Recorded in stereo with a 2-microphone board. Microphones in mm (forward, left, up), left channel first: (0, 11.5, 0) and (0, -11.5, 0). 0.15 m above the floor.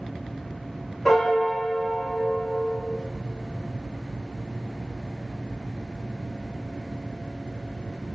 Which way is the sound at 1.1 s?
5° left (ahead or behind).